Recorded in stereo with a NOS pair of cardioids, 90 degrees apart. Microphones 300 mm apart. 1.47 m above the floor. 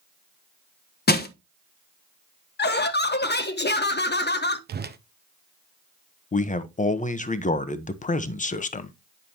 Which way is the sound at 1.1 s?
35° left.